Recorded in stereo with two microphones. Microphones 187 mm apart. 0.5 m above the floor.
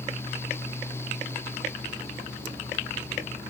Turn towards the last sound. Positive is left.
No sound to turn to.